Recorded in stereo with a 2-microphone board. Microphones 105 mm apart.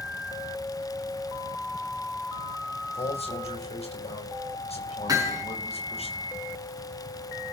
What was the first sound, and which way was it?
A man speaking, 70° left (ahead or behind).